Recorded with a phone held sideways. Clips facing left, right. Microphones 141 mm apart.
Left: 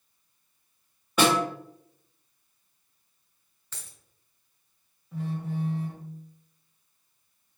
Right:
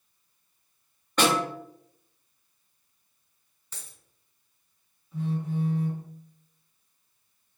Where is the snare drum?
10° left (ahead or behind), 1.4 m.